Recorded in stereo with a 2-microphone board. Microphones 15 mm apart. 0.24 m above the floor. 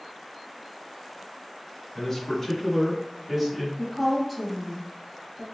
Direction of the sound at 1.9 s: 25° left (ahead or behind).